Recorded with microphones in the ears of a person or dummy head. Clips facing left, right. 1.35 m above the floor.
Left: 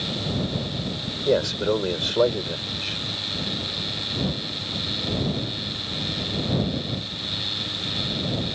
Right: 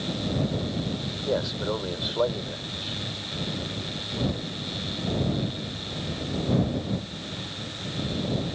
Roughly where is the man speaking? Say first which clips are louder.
Left 6 dB; left.